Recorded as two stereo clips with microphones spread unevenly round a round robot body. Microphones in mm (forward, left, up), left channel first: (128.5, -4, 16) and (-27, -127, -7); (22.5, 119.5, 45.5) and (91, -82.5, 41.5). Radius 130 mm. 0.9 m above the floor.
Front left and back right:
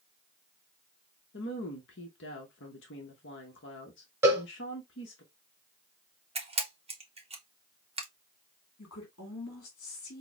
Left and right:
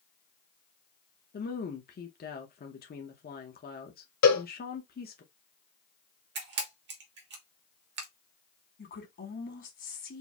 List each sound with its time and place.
1.3 s a woman speaking: 70° left, 1.0 m
4.2 s a cowbell: 135° left, 1.1 m
6.3 s a camera shutter: 95° right, 1.4 m
8.8 s a woman speaking: 75° left, 2 m